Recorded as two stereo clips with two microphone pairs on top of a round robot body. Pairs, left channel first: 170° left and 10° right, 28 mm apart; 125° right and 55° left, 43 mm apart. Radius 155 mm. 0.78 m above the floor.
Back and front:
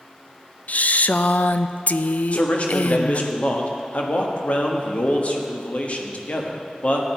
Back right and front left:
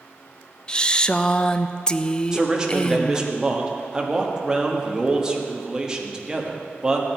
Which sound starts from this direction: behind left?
A man speaking, at 2.3 s.